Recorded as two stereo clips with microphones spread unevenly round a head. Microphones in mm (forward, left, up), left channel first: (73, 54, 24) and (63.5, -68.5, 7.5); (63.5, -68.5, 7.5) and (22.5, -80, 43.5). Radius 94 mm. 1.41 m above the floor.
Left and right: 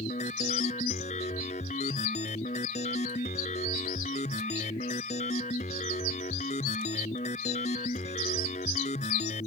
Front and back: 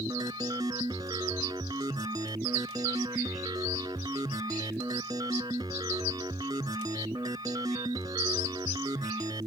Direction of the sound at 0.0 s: 145° left.